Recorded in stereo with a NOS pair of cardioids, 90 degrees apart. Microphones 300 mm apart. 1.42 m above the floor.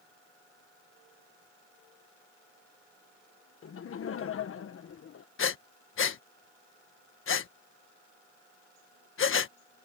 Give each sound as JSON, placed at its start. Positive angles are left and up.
{"t": 3.6, "sound": "laughter", "azimuth_deg": 45}
{"t": 5.4, "sound": "breathing", "azimuth_deg": 45}